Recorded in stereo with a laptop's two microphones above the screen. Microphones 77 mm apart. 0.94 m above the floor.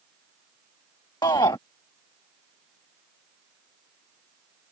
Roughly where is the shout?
Left.